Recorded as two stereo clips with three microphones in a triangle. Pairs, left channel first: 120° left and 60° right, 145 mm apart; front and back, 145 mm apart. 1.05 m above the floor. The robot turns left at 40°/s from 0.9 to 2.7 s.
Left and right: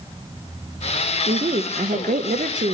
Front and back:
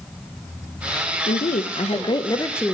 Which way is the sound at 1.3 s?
20° right.